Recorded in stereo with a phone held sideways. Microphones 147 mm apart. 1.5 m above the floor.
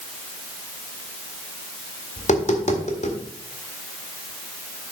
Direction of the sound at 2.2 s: 50° left (ahead or behind).